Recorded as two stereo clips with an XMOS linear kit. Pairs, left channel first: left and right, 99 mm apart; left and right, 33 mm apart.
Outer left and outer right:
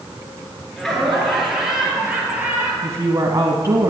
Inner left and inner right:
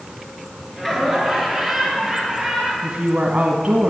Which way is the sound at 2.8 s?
30° right (ahead or behind).